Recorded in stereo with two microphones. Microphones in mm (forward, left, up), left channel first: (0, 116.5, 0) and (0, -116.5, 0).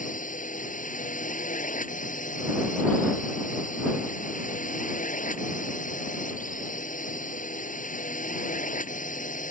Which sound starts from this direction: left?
A drone, at 0.0 s.